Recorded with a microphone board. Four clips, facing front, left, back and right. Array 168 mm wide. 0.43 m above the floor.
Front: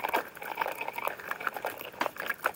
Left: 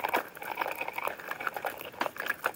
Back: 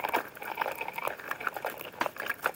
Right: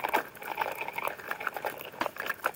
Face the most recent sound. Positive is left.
No sound to turn to.